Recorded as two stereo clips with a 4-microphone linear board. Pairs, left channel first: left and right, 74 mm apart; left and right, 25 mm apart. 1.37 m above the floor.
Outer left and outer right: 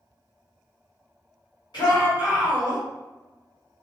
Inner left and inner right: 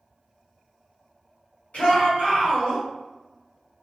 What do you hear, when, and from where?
1.7 s a shout: 75° left (ahead or behind), 1.8 m